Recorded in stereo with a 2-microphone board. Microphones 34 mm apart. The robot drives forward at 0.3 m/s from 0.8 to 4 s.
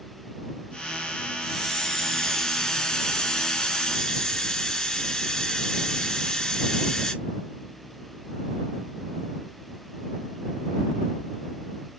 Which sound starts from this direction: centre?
A hiss, at 1.4 s.